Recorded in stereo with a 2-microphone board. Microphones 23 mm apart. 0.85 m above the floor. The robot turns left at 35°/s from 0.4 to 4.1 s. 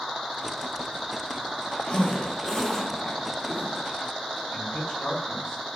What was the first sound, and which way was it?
A zipper, 40° left (ahead or behind).